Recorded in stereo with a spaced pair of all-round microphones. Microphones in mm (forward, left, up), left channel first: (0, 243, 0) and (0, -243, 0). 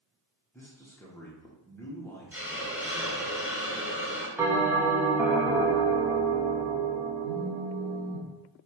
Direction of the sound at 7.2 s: 65° right (ahead or behind).